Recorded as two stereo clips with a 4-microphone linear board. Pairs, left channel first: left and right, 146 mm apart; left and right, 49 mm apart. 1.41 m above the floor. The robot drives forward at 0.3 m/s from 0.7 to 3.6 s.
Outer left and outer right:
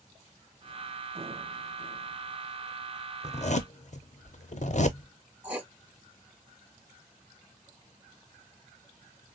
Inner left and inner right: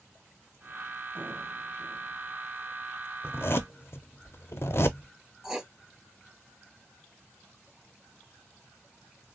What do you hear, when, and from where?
3.2 s a zipper: 45° left (ahead or behind), 0.5 m; by 5.1 s 55° left (ahead or behind), 0.5 m
5.4 s writing: 10° right (ahead or behind), 0.6 m